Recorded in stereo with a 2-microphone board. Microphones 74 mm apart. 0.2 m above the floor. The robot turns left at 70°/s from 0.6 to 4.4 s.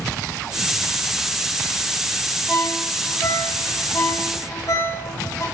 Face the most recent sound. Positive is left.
turn(degrees=50)  # may be behind; listen again after turning